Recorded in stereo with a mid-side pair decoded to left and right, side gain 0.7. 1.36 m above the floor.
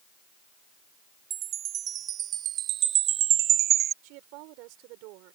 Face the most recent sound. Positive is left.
turn(degrees=-70)